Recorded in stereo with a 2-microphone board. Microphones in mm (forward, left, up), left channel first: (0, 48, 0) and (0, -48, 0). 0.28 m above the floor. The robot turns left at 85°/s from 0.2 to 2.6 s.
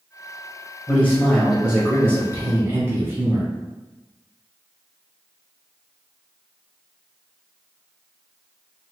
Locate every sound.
0.9 s a man speaking: 20° left (ahead or behind), 1.0 m; by 3.5 s 25° right (ahead or behind), 1.0 m